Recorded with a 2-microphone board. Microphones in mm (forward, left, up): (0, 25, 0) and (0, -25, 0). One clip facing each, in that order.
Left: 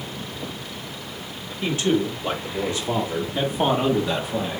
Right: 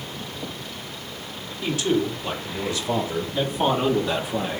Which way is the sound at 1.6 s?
40° left (ahead or behind).